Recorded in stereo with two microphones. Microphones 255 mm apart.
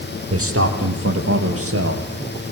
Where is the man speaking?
65° right (ahead or behind), 4.5 m.